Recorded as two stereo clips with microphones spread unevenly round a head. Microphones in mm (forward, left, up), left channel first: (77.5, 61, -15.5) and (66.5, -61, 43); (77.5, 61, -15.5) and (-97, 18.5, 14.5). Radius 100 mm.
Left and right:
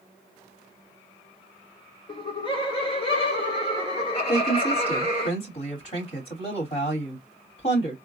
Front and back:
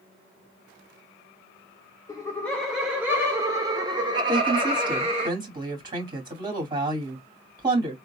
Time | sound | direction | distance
2.1 | laughter | 75° left | 0.9 m
4.3 | a woman speaking | 125° left | 2.5 m